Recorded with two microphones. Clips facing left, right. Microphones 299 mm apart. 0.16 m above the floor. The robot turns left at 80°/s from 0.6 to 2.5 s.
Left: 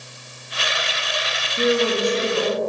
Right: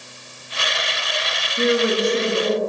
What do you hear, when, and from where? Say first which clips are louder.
1.6 s a woman speaking: right 1 dB; straight ahead, 1.8 m; by 2.6 s 75° right, 1.8 m